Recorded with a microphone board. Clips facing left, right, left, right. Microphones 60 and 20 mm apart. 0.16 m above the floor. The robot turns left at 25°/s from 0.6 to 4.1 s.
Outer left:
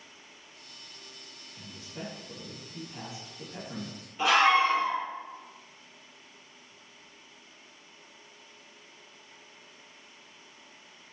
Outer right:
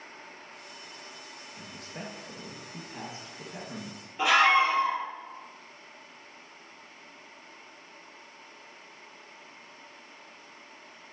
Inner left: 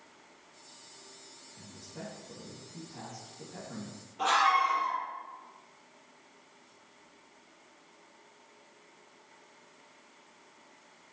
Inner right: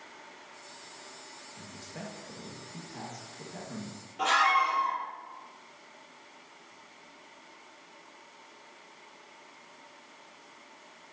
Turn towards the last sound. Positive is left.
turn(degrees=-25)  # may be behind; listen again after turning